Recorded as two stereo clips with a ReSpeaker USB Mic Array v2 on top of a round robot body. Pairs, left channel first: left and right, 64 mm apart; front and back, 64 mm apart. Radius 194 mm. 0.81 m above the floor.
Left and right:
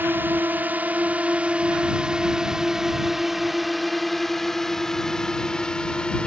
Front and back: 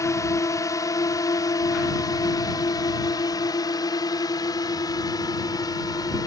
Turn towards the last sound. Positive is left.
turn(degrees=15)